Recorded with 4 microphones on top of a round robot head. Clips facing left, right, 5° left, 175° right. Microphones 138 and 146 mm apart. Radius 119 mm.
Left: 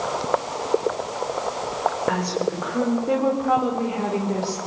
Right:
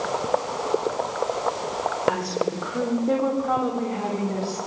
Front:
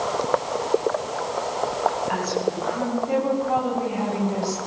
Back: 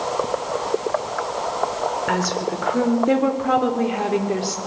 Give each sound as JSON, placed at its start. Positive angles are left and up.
{"t": 2.1, "sound": "a woman speaking", "azimuth_deg": -175, "distance_m": 5.0}